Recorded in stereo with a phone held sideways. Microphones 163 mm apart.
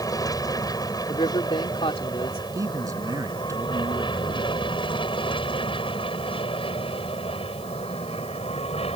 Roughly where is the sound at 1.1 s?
Left.